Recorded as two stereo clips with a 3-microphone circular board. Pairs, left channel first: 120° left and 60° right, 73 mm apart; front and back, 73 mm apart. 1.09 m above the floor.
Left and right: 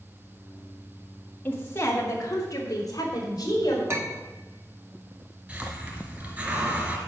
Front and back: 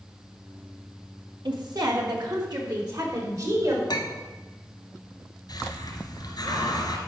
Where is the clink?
10° right, 1.5 m.